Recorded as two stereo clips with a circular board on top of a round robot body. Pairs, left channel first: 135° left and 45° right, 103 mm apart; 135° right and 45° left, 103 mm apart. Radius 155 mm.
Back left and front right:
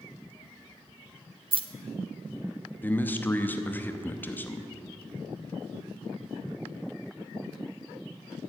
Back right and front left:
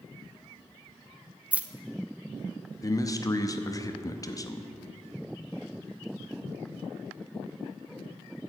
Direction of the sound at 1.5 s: 30° right.